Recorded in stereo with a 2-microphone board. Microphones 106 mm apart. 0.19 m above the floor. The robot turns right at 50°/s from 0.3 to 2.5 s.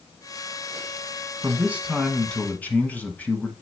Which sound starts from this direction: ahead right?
A man speaking, at 1.4 s.